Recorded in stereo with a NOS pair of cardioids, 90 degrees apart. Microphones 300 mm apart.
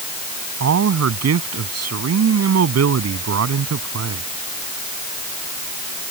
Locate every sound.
0.6 s a man speaking: 50° right